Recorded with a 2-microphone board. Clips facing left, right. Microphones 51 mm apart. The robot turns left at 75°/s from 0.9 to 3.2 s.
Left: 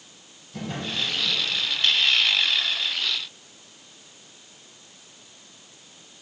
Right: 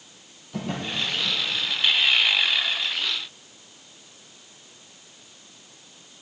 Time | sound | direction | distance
0.5 | a drawer | 65° right (ahead or behind) | 3.5 m